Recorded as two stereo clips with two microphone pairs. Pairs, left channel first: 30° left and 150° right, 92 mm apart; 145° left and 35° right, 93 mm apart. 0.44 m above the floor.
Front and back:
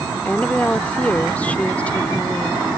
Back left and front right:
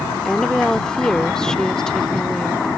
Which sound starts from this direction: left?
A woman speaking, at 0.2 s.